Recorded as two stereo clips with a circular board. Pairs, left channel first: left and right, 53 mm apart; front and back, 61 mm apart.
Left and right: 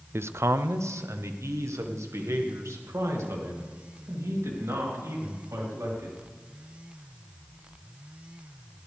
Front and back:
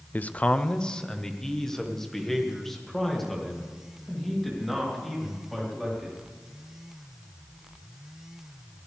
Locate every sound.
0.1 s a man speaking: 60° right, 0.6 m; by 6.2 s 90° right, 4.5 m